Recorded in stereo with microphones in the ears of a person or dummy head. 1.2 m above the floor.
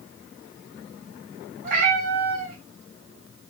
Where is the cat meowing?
55° right (ahead or behind), 1.2 m.